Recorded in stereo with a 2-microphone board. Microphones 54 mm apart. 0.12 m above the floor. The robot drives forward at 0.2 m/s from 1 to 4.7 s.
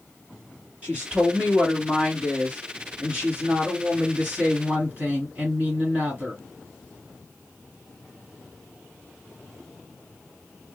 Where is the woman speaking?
20° right (ahead or behind), 1.9 m; by 6.4 s 25° right (ahead or behind), 1.8 m.